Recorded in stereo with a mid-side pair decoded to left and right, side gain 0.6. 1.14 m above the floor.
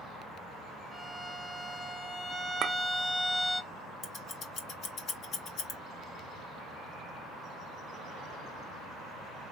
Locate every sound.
0.9 s a violin: 10° left, 1.2 m
2.6 s a clink: 50° right, 0.5 m
4.0 s scissors: 50° left, 1.2 m